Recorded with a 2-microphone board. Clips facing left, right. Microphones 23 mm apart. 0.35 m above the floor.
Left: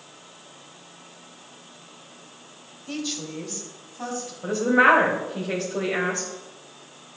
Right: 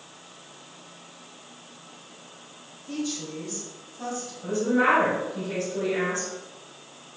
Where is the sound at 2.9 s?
40° left (ahead or behind), 1.4 m; by 4.3 s 20° left (ahead or behind), 2.5 m.